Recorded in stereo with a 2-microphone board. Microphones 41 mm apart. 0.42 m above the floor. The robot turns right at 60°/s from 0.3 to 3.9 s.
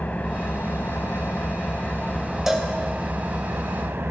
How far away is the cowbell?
About 2 m.